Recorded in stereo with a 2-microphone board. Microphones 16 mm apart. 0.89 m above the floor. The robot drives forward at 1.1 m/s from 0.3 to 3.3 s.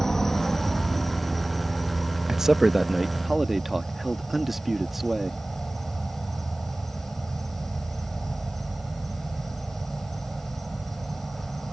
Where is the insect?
25° left (ahead or behind); by 11.7 s 5° left (ahead or behind).